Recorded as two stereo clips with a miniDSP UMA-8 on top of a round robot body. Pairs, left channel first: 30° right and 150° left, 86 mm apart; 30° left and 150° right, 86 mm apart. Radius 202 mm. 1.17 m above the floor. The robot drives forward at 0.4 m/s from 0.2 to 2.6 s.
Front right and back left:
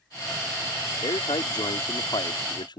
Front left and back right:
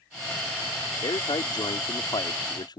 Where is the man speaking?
5° right.